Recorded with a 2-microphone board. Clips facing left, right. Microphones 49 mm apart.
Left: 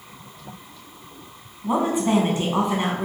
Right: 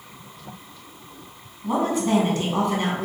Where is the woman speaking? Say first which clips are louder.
Left 1 dB; 20° left (ahead or behind), 1.0 m.